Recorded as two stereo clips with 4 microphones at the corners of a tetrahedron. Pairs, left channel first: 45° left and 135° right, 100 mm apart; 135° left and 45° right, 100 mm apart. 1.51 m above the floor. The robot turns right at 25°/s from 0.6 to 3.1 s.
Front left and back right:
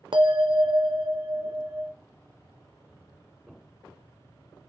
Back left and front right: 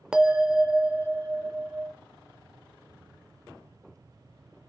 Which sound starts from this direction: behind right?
A bell, at 0.1 s.